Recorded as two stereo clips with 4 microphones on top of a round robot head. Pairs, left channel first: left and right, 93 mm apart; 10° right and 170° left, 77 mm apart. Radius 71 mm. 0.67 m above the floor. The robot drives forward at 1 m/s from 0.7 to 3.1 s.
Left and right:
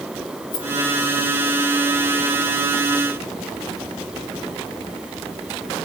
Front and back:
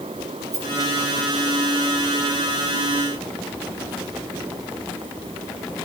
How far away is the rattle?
About 4.5 m.